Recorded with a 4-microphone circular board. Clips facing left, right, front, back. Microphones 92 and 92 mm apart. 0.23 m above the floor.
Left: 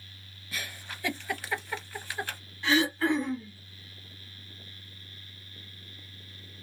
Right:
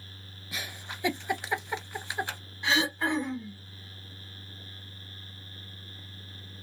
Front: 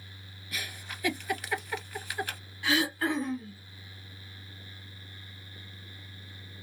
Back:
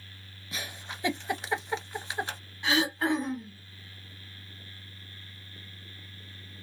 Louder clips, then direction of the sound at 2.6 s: Left 3 dB, back 1 dB; 140° right.